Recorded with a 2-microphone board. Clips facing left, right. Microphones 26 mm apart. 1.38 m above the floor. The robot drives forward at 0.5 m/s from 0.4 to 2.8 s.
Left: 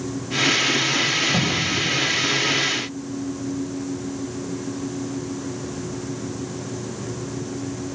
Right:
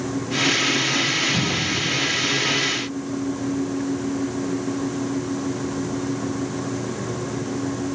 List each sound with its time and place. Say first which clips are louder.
1.3 s a cupboard door: left 1 dB; 85° left, 1.3 m; by 1.8 s 80° left, 1.3 m